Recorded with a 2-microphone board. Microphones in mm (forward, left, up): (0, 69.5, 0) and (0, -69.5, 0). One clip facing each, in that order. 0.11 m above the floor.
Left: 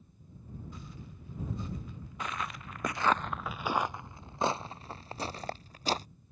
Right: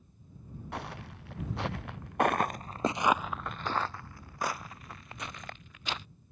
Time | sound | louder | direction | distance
0.7 | footsteps | right 7 dB | 75° right (ahead or behind) | ?